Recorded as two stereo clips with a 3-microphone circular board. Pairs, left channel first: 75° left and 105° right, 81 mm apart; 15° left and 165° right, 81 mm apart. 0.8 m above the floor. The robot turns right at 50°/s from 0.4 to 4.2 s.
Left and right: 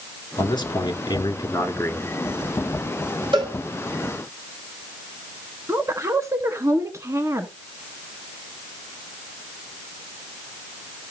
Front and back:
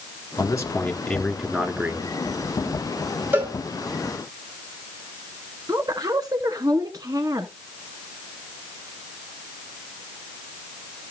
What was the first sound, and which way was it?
A man speaking, 60° left.